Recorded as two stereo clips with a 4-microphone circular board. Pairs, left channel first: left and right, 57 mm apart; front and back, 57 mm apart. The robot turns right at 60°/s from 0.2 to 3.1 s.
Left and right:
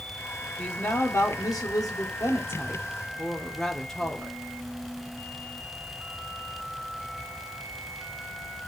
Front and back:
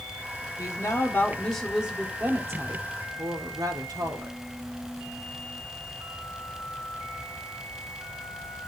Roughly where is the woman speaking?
Ahead left.